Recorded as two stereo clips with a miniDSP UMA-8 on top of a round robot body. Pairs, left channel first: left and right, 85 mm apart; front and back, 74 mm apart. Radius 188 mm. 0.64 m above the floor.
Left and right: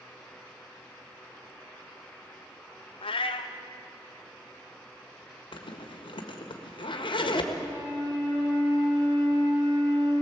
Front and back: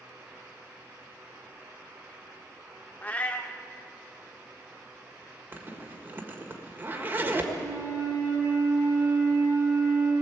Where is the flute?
125° right, 8 m.